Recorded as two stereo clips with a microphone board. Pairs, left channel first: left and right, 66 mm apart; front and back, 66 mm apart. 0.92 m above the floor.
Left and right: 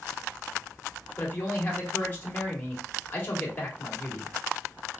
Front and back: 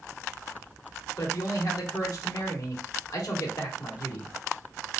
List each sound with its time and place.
1.2 s a man speaking: 30° left, 1.8 m